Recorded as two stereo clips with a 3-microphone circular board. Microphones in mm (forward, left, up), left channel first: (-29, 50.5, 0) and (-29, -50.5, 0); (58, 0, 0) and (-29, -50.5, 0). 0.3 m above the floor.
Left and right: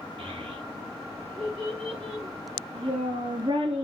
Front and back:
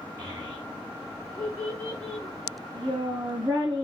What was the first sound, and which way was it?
A child speaking, 105° right.